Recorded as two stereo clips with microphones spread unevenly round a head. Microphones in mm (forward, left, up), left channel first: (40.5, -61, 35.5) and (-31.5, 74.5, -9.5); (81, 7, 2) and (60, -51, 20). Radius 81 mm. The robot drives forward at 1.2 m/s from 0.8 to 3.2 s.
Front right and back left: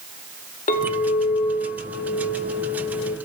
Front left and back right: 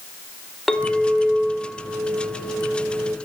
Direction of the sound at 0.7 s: 20° right.